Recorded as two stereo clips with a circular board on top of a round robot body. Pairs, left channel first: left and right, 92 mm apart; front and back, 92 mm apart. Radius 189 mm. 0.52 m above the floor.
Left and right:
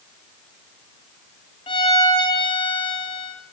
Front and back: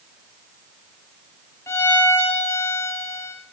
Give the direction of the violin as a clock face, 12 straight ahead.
10 o'clock.